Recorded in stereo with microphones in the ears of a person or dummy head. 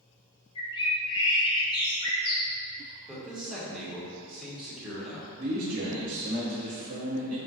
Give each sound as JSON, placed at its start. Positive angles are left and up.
{"t": 0.6, "sound": "a bird", "side_deg": 30, "distance_m": 0.6}
{"t": 3.1, "sound": "a man speaking", "side_deg": 5, "distance_m": 1.1}
{"t": 5.4, "sound": "a man speaking", "side_deg": -40, "distance_m": 0.7}